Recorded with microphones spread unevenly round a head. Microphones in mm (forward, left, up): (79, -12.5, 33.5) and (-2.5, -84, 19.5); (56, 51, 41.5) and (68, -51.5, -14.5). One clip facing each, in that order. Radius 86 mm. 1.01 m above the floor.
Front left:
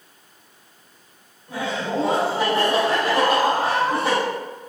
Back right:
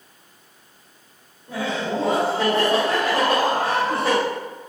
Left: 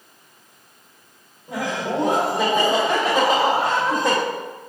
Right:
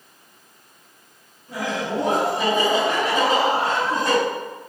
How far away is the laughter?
About 1.7 m.